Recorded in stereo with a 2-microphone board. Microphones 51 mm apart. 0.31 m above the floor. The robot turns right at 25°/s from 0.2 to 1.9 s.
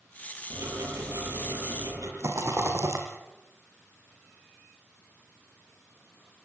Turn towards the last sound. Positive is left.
turn(degrees=-60)  # may be behind; listen again after turning